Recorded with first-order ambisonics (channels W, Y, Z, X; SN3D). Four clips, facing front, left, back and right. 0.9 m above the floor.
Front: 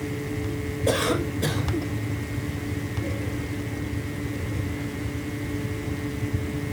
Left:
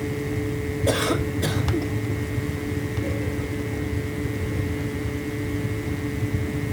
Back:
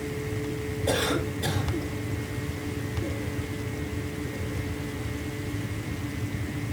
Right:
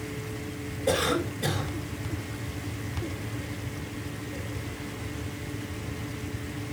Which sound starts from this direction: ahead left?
A cough, at 0.9 s.